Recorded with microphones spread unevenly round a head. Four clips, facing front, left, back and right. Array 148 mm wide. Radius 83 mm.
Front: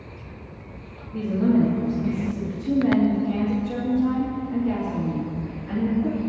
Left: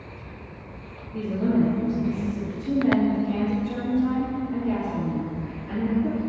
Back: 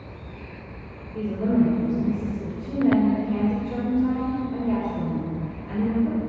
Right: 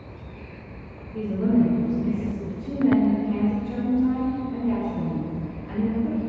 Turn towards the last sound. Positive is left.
turn(degrees=-5)